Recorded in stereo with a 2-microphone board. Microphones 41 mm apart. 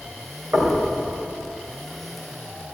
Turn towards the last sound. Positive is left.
turn(degrees=-50)  # may be behind; listen again after turning